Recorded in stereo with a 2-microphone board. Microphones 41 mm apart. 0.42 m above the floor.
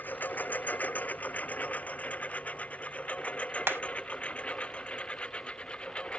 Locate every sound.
0.0 s a lawn mower: 50° left (ahead or behind); by 6.2 s 25° left (ahead or behind)
3.7 s hammering: 70° right (ahead or behind)